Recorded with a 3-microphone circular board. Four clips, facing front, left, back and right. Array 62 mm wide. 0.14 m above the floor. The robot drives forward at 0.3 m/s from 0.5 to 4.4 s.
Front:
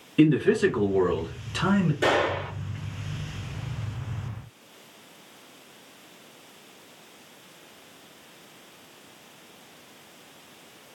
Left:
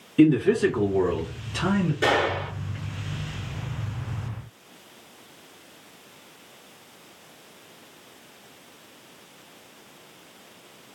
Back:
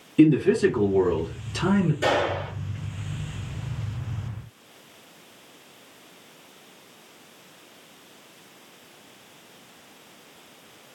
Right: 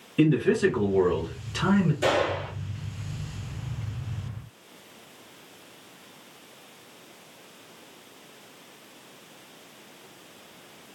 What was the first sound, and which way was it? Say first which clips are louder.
A man speaking: left 3 dB, back 2 dB; straight ahead.